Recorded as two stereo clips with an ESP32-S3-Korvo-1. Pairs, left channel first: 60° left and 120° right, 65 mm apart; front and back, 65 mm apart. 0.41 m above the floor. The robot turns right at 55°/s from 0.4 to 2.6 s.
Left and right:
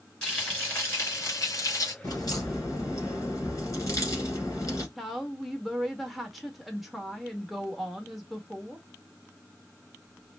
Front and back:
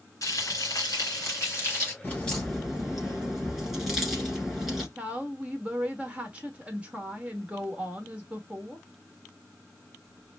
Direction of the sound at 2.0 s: 70° left.